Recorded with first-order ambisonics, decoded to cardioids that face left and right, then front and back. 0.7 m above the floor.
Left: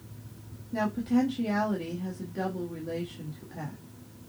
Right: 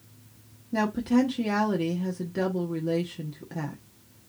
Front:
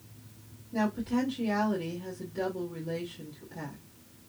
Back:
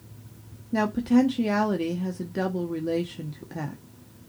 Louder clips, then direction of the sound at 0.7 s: Right 3 dB, back 7 dB; 150° right.